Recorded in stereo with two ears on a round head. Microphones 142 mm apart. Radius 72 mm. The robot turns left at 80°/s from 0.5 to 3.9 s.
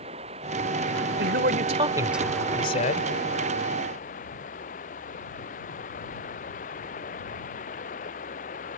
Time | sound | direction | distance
0.0 | running water | 40° right | ?
1.2 | a man speaking | 95° right | ?